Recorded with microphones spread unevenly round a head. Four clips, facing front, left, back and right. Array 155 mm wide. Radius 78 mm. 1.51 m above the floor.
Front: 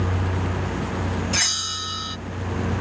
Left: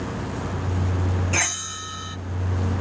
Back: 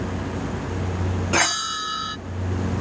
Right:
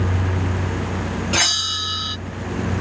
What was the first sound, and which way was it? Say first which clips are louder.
A bell: right 4 dB, back 7 dB; 165° right.